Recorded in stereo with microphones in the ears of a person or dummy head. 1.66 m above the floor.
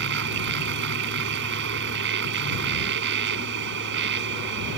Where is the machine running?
60° right (ahead or behind).